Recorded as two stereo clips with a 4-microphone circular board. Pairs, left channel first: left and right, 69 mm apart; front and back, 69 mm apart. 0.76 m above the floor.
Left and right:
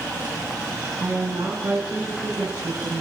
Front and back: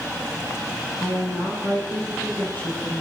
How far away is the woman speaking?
About 7.5 m.